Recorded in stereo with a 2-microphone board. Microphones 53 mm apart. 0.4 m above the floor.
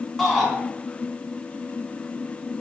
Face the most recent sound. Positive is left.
turn(degrees=5)  # may be behind; listen again after turning